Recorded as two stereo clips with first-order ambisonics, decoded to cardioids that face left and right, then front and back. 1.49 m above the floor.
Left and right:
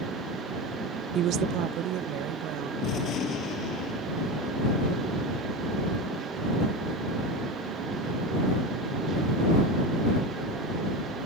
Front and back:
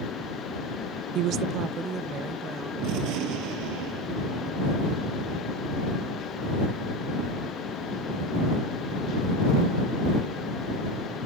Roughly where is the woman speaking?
Behind right.